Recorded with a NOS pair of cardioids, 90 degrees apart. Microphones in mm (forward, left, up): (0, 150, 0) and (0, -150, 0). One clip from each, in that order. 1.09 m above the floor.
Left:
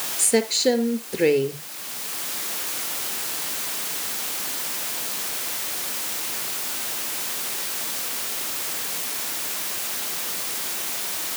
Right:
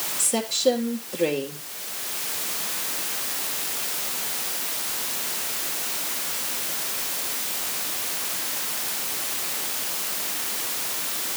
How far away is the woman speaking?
About 4 m.